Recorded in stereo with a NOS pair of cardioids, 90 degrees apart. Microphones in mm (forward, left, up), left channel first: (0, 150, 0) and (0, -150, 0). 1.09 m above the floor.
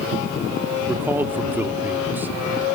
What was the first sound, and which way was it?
A man speaking, 5° right.